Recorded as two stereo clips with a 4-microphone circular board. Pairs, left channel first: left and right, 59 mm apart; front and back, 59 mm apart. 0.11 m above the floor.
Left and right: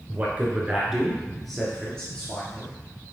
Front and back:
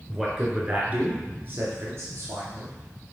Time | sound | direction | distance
0.1 | a man speaking | 95° right | 1.8 m